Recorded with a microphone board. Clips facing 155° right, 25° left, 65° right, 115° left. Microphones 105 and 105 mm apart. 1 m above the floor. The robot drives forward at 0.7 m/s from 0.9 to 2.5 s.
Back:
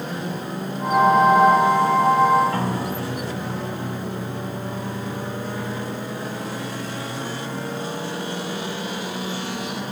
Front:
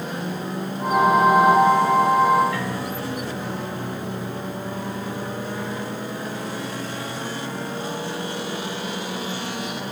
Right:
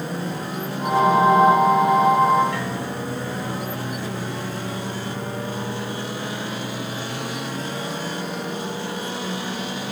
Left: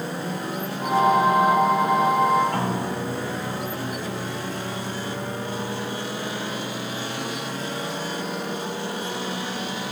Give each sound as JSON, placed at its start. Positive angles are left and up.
{"t": 2.5, "sound": "a piano", "azimuth_deg": 155}